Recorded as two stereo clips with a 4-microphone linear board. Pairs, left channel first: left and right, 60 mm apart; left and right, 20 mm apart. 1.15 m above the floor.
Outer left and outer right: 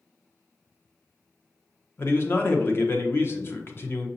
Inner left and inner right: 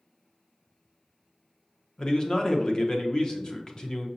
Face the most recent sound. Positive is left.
turn(degrees=40)  # may be behind; listen again after turning